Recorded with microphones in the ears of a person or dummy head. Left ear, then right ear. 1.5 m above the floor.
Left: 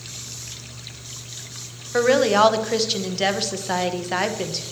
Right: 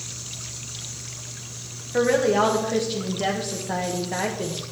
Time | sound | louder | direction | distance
1.9 | a woman speaking | left 3 dB | 45° left (ahead or behind) | 1.2 m